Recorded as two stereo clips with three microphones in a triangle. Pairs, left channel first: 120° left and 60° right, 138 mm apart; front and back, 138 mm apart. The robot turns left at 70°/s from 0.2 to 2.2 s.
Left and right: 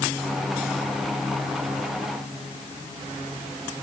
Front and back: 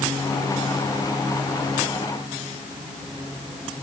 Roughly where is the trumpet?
No trumpet in this recording.